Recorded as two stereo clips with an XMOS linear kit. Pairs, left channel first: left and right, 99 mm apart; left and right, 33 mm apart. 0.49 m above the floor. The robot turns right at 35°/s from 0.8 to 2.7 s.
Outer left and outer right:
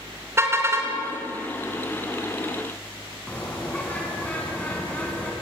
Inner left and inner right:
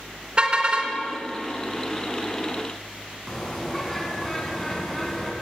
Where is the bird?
15° left (ahead or behind), 4 m.